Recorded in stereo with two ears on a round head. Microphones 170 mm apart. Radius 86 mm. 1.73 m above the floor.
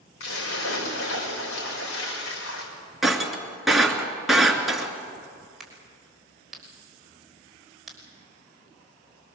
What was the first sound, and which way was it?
A splash, 80° left.